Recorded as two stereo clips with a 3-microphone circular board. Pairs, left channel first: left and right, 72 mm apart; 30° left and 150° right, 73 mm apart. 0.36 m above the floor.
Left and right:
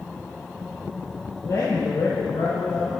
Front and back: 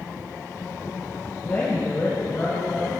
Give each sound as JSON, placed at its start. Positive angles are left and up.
{"t": 1.4, "sound": "a man speaking", "azimuth_deg": 90, "distance_m": 1.5}